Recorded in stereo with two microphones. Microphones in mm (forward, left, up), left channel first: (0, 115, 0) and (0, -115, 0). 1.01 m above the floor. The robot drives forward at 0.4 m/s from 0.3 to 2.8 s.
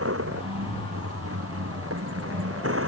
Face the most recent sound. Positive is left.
turn(degrees=-65)  # may be behind; listen again after turning